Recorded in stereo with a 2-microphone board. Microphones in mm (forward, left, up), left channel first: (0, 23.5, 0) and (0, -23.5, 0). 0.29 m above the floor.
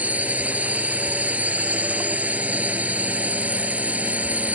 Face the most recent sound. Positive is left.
turn(degrees=-30)  # may be behind; listen again after turning